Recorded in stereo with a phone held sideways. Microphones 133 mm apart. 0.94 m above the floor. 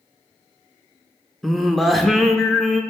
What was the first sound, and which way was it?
Singing, centre (ahead or behind).